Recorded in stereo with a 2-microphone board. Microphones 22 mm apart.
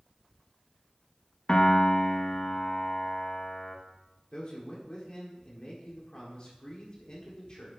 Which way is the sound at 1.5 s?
40° left (ahead or behind).